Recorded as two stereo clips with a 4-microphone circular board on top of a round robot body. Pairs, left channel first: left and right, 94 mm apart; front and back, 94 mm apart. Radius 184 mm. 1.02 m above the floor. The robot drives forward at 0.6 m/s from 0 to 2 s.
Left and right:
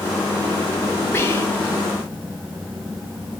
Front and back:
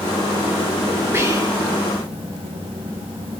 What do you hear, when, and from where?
1.1 s whispering: 135° left, 0.9 m; by 1.7 s 155° left, 1.1 m